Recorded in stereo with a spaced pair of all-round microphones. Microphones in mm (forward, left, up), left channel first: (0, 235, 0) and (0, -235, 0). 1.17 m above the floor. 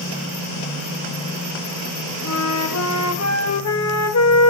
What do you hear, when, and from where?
2.2 s a flute: 35° left (ahead or behind), 0.7 m